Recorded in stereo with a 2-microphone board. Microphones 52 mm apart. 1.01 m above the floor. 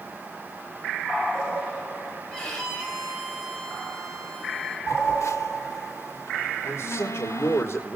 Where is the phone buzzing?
65° left (ahead or behind), 1.2 m.